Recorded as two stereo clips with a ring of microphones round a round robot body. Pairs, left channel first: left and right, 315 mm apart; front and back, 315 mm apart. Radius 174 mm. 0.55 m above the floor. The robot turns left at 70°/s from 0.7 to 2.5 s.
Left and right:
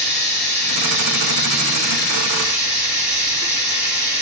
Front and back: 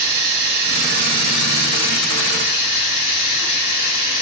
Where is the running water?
140° left, 2 m; by 4.2 s 15° left, 2 m.